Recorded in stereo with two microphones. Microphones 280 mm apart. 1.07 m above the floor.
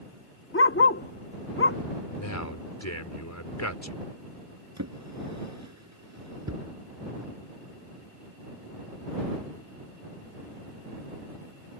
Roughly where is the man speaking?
Left.